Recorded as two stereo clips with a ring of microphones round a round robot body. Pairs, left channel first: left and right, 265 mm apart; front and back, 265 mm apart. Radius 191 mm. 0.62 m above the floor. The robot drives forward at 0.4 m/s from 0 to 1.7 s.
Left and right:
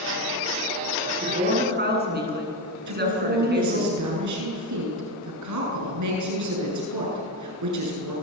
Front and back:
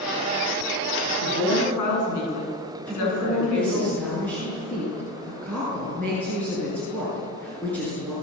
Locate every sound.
1.0 s a woman speaking: 35° right, 9.5 m; by 3.9 s 40° right, 9 m
2.9 s a woman speaking: 85° right, 8 m